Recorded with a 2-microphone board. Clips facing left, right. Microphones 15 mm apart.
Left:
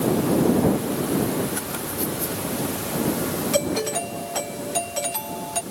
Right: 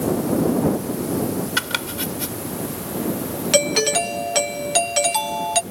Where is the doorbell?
40° right (ahead or behind).